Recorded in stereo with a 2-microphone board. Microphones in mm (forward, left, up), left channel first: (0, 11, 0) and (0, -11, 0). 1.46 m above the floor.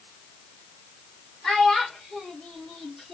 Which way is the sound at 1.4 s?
30° left (ahead or behind).